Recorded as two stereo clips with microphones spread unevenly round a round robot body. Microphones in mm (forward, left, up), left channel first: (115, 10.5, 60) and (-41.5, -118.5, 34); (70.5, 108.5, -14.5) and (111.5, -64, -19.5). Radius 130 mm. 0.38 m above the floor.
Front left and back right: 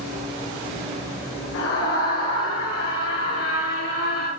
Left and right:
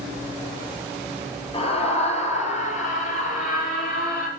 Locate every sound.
1.5 s a scream: 45° left, 8 m; by 4.3 s 70° left, 8.5 m